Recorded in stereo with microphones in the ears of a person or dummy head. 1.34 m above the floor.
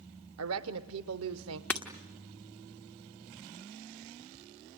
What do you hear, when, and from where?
0.4 s a woman speaking: 75° right (ahead or behind), 0.7 m
1.7 s breaking glass: 5° left (ahead or behind), 1.2 m